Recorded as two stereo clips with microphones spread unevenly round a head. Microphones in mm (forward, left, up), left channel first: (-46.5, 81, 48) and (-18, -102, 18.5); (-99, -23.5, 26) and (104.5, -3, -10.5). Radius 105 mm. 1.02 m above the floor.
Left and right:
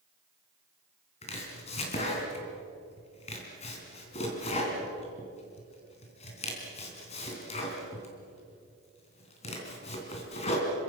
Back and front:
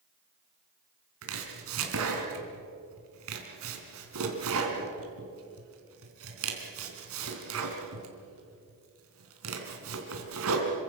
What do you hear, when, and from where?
1.2 s chopping: 40° left, 3.5 m